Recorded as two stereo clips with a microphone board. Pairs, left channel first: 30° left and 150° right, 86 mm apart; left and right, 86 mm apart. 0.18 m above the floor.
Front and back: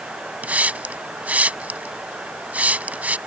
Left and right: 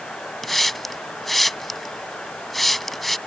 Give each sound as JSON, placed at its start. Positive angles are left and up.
{"t": 0.4, "sound": "a hiss", "azimuth_deg": 175}